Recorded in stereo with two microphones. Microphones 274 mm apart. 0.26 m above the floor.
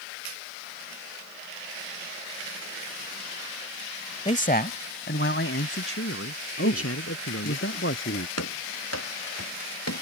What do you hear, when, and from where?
4.2 s a man speaking: 25° left (ahead or behind); by 7.6 s 60° left (ahead or behind)
6.6 s a man speaking: 50° left (ahead or behind)
8.4 s running footsteps: 65° left (ahead or behind); by 10.0 s 70° left (ahead or behind)